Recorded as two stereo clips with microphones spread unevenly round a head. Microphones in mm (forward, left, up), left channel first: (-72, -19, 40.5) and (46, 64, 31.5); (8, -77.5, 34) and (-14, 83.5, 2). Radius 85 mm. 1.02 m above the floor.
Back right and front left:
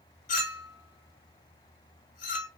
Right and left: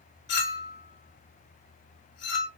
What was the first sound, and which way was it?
A clink, 105° right.